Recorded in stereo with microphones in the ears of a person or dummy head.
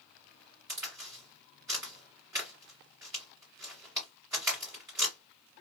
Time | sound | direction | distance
0.7 | a crack | 20° right (ahead or behind) | 1.6 m